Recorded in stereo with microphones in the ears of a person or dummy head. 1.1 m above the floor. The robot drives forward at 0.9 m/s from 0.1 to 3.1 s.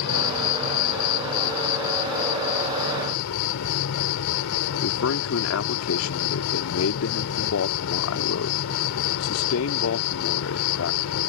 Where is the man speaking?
75° left (ahead or behind).